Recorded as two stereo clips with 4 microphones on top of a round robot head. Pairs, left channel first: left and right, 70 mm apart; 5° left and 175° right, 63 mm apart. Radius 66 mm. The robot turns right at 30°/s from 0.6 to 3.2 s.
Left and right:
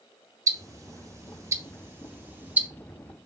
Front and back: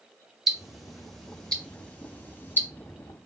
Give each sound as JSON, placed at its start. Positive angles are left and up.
{"t": 0.5, "sound": "ticking", "azimuth_deg": -90, "distance_m": 0.7}